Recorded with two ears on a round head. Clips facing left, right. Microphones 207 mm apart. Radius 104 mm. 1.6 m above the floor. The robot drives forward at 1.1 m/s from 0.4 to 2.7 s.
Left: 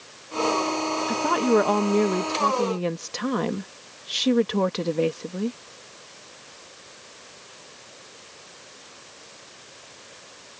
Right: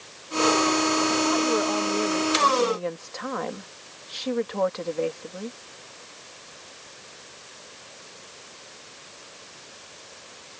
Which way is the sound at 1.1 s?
60° left (ahead or behind).